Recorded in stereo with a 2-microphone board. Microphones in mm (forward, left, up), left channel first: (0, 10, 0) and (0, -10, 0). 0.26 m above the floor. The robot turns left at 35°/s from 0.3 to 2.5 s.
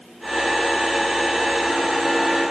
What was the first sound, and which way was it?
Only background noise.